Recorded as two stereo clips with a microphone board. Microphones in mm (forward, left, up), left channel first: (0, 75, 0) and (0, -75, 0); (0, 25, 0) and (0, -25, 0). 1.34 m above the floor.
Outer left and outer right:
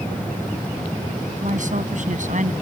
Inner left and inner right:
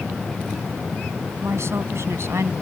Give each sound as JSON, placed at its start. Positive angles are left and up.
{"t": 1.4, "sound": "a woman speaking", "side_deg": -60}